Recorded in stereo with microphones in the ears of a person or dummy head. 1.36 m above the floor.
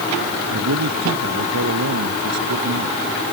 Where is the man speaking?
80° right.